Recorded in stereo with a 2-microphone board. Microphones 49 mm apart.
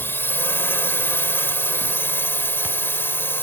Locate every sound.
0.0 s a drone: 55° left (ahead or behind)